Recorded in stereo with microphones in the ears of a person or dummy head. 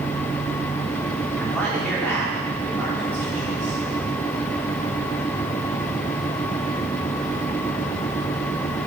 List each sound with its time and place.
1.4 s a man speaking: 10° left (ahead or behind), 4 m